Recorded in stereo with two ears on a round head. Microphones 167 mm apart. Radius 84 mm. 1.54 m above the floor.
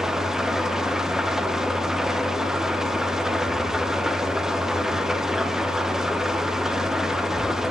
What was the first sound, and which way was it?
An engine running, 5° right (ahead or behind).